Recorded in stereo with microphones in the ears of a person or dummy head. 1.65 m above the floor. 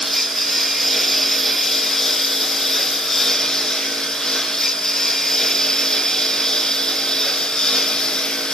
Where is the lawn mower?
Centre (ahead or behind); by 8.5 s 5° left (ahead or behind).